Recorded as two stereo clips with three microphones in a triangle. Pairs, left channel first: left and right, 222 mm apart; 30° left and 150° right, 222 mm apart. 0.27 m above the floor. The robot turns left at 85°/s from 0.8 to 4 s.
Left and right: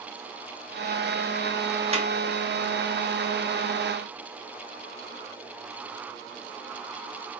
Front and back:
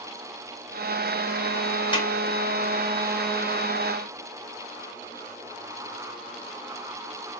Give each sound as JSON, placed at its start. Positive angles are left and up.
{"t": 1.9, "sound": "a snare drum", "azimuth_deg": -35, "distance_m": 0.9}